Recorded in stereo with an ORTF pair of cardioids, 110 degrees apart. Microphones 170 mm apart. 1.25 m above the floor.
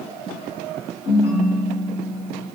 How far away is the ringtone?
About 1.4 m.